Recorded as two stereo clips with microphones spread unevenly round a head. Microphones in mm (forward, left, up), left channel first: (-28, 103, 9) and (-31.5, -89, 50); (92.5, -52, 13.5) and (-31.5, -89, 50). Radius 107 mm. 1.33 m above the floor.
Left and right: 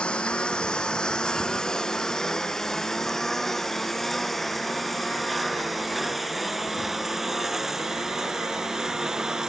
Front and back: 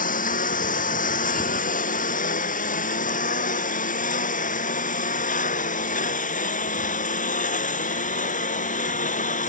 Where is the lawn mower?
5° left; by 9.5 s 5° right.